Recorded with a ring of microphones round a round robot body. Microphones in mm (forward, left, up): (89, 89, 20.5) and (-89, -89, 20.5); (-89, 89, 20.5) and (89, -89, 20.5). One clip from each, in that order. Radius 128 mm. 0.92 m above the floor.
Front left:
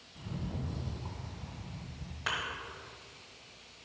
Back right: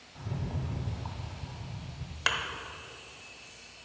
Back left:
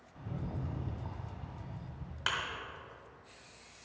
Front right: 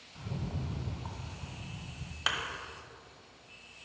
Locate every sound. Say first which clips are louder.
0.1 s a rattle: back right 3 dB, front right 2 dB; 110° right, 0.9 m
2.3 s a thud: back right 5 dB, front right 2 dB; 125° right, 1.3 m